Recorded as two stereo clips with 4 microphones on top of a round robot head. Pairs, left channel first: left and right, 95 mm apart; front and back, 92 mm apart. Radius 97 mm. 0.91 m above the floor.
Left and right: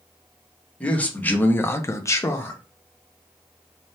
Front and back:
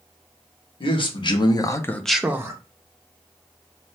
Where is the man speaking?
15° left, 1.2 m; by 2.6 s 145° left, 0.7 m.